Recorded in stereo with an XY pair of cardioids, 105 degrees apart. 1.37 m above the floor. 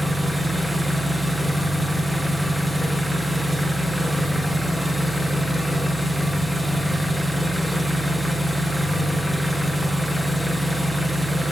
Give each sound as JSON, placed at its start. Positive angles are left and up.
{"t": 0.0, "sound": "an engine running", "azimuth_deg": 0, "distance_m": 0.9}